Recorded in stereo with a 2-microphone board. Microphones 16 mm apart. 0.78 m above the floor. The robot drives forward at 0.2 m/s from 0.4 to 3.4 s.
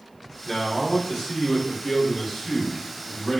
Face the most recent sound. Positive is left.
turn(degrees=20)  # may be behind; listen again after turning